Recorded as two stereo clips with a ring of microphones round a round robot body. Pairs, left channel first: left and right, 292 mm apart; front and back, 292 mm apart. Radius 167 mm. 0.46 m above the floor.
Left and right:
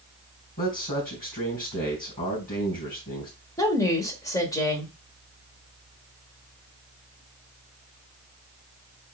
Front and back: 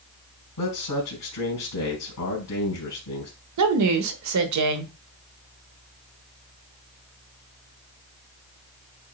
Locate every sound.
0.6 s a man speaking: 30° left, 3 m
3.6 s a woman speaking: 170° left, 1.4 m